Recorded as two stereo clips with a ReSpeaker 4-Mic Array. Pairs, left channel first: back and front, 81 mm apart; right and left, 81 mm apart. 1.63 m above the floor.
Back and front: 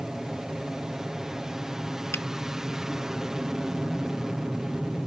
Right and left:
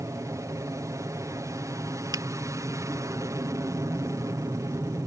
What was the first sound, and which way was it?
An aircraft, 80° left.